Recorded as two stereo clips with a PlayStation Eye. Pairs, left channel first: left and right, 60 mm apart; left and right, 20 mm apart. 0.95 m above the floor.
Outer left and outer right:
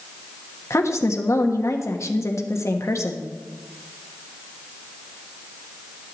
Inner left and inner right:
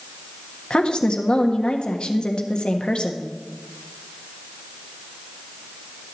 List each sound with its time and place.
0.7 s a woman speaking: 55° left (ahead or behind), 1.3 m